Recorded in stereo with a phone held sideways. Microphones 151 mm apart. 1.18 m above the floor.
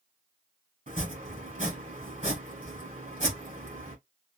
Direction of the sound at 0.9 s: 60° right (ahead or behind).